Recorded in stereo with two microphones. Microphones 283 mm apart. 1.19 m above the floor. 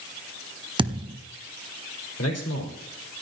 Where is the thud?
15° right (ahead or behind), 1.2 m.